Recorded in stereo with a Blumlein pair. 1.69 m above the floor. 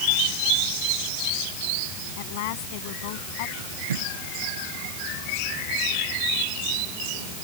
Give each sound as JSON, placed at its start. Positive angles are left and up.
{"t": 2.2, "sound": "a woman speaking", "azimuth_deg": 50}
{"t": 3.6, "sound": "tape being pulled", "azimuth_deg": -65}